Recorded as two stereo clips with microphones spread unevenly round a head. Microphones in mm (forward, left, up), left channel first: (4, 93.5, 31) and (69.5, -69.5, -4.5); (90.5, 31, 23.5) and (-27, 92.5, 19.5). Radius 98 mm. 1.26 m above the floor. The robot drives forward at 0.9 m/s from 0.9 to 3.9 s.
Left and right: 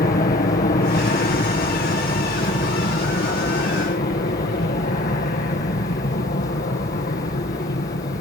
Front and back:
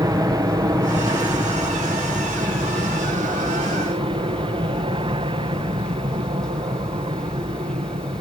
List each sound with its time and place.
0.0 s an aircraft: 115° left; by 8.2 s 135° left